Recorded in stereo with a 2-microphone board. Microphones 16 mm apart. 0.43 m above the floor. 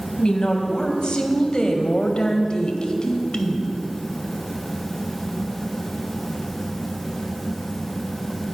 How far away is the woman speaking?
About 2.5 m.